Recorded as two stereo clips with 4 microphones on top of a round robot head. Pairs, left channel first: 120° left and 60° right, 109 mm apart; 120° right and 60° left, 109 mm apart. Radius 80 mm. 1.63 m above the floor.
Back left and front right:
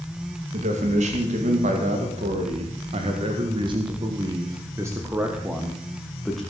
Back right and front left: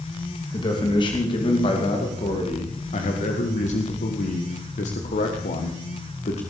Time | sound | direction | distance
0.5 | a man speaking | 70° right | 3 m